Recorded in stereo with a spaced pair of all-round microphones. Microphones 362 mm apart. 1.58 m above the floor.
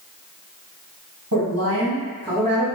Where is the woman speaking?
55° right (ahead or behind), 1.4 m; by 2.6 s 5° right (ahead or behind), 1.8 m.